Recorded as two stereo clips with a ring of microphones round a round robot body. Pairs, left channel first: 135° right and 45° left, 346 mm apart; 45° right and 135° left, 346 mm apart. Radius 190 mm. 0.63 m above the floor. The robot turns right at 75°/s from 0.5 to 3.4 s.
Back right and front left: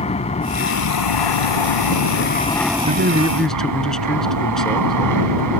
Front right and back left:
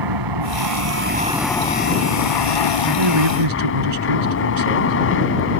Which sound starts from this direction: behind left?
An aircraft, at 0.0 s.